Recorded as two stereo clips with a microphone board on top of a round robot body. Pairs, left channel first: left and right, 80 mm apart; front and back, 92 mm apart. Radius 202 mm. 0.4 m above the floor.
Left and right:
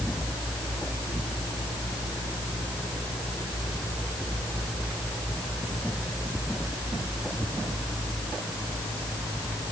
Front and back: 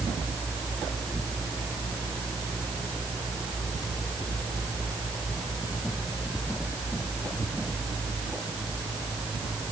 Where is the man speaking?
I don't hear a man speaking.